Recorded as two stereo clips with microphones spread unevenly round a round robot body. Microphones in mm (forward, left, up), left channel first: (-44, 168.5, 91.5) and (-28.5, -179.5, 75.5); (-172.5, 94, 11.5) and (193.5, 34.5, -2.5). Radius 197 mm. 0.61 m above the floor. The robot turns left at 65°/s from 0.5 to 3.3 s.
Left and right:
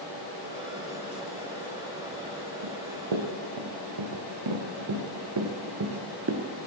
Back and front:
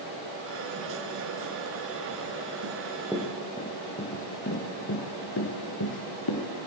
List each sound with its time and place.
2.6 s running footsteps: 60° right, 3.5 m; by 6.5 s 145° right, 3 m